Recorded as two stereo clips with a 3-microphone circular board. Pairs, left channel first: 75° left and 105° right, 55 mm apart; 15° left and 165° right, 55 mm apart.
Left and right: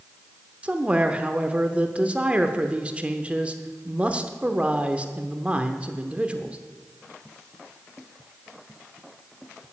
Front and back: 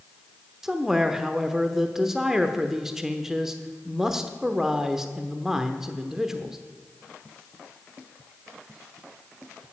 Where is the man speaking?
95° right, 0.9 m.